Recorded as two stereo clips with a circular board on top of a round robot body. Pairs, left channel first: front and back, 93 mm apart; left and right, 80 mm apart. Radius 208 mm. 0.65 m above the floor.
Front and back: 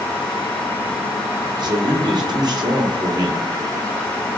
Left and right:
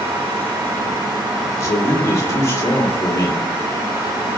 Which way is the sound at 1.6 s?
140° left.